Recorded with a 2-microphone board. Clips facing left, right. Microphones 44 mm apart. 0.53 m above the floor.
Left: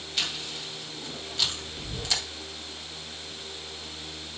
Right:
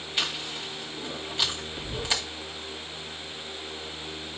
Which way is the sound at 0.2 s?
20° right (ahead or behind).